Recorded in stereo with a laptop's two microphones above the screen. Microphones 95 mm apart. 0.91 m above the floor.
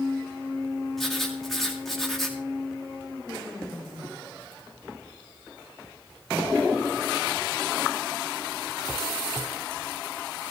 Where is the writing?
5° left (ahead or behind), 2.0 m.